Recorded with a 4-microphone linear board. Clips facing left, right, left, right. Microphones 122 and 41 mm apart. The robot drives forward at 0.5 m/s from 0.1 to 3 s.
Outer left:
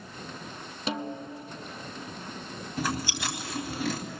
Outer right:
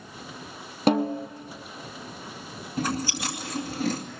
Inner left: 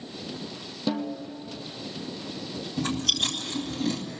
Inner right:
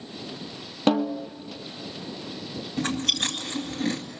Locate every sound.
0.9 s a snare drum: 55° right (ahead or behind), 0.9 m; by 1.3 s 45° right (ahead or behind), 1.0 m
2.8 s chewing: 45° right (ahead or behind), 2 m